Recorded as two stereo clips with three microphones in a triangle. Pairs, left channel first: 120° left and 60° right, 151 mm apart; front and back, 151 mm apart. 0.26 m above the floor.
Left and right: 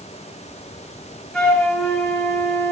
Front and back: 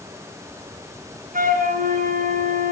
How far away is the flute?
About 3.5 m.